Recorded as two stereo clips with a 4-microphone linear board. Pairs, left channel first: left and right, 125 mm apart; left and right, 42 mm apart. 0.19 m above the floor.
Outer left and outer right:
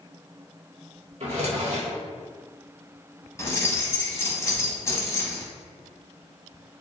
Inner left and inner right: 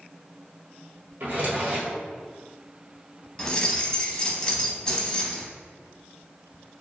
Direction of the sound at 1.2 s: 60° right (ahead or behind).